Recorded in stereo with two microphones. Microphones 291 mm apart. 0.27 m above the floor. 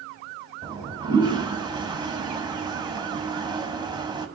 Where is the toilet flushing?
15° right (ahead or behind), 1.1 m.